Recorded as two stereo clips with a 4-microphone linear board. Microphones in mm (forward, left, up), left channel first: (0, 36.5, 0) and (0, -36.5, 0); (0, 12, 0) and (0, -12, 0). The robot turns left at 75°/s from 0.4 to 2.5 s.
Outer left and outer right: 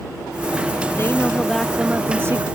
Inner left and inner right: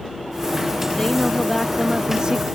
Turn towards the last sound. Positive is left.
turn(degrees=-65)